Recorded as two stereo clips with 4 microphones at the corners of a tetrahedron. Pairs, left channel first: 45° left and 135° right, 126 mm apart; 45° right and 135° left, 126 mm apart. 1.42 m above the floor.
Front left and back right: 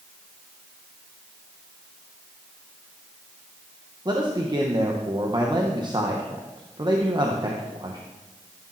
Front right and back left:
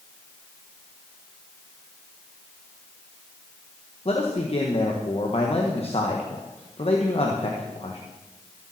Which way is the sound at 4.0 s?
80° right.